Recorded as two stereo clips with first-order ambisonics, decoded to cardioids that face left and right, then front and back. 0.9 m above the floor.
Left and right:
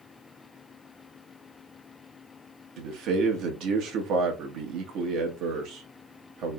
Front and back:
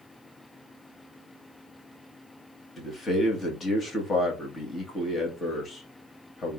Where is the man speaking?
70° right, 1.4 m.